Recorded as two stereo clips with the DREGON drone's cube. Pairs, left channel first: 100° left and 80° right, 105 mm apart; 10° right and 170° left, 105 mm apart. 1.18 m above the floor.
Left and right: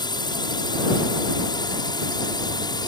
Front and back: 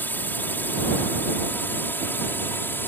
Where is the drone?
60° left.